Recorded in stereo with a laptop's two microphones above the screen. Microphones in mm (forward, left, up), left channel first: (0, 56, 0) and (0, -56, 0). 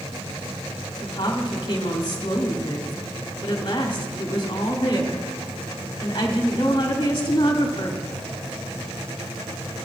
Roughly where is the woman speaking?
Left.